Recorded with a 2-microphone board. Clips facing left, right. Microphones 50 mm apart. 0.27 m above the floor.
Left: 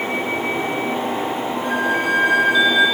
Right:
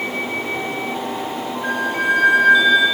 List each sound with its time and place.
1.6 s a flute: 75° right (ahead or behind), 10 m